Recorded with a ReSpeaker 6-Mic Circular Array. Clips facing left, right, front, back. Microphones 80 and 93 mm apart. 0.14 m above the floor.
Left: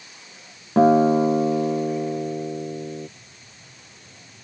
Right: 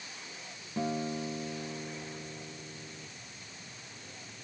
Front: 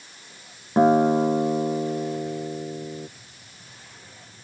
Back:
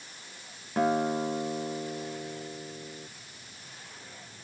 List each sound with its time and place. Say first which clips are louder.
0.8 s a guitar: left 19 dB, front 9 dB; 60° left